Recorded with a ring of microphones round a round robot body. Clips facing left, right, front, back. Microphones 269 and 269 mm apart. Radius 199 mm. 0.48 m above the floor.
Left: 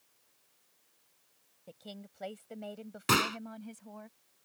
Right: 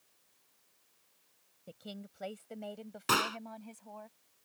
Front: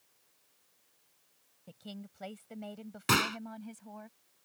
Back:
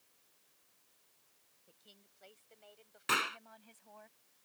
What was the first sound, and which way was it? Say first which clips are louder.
A woman speaking: right 1 dB, front 21 dB; 15° right.